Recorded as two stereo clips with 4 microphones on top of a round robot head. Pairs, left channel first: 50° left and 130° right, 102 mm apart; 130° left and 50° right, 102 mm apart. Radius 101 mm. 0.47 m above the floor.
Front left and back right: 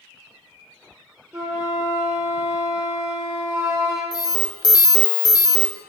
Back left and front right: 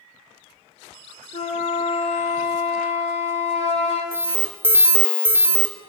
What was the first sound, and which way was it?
A flute, 160° left.